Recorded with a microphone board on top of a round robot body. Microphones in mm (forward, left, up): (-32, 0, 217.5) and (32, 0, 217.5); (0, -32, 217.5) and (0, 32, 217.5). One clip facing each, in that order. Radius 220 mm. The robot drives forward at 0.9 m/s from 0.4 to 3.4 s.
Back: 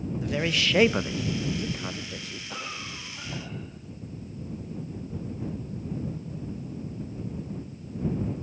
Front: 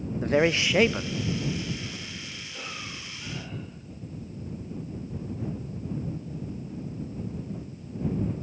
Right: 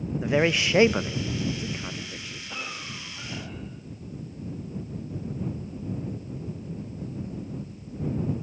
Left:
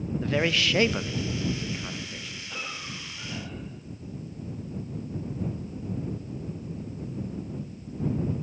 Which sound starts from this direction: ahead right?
A man speaking, at 0.2 s.